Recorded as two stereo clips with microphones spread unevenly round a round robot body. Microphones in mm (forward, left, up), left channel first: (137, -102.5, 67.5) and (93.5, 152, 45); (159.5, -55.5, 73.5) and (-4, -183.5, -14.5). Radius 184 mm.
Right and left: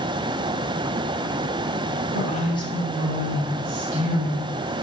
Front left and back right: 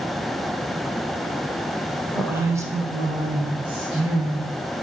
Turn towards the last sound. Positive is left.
turn(degrees=160)